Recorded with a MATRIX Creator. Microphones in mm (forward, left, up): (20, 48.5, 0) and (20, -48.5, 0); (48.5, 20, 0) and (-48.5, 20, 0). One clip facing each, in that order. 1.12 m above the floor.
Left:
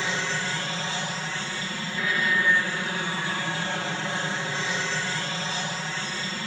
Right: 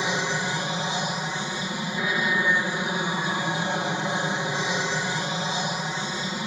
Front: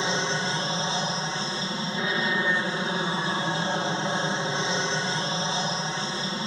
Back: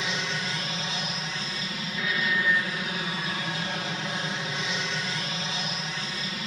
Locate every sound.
0.0 s an aircraft: 30° right